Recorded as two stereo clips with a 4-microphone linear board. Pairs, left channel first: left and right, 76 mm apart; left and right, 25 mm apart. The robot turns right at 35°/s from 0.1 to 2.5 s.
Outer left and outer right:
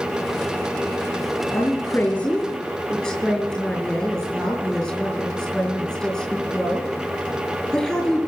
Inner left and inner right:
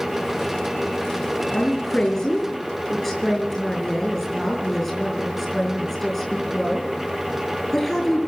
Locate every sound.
1.5 s a woman speaking: 140° left, 5 m; by 8.3 s 175° left, 5 m